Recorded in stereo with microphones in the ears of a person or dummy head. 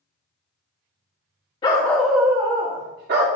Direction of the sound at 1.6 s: 25° left (ahead or behind).